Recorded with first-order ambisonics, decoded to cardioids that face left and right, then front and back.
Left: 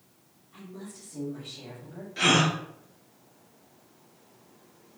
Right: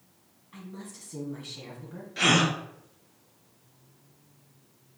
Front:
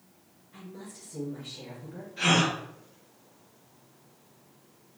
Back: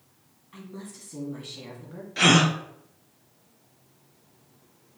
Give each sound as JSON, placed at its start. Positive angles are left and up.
{"t": 0.5, "sound": "a woman speaking", "azimuth_deg": -140, "distance_m": 2.0}
{"t": 2.2, "sound": "a gasp", "azimuth_deg": -170, "distance_m": 0.6}